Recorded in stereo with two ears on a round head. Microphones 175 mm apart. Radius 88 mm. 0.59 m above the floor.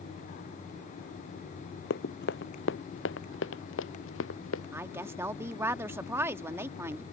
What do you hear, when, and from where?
1.9 s running footsteps: 55° left (ahead or behind); by 4.6 s 75° left (ahead or behind)
4.7 s a woman speaking: 15° right (ahead or behind)